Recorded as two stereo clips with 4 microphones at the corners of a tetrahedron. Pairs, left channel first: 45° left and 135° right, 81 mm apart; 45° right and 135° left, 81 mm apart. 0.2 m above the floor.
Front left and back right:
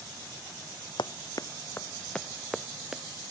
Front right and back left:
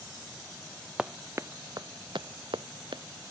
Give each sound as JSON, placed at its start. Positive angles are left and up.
{"t": 1.0, "sound": "running footsteps", "azimuth_deg": 55}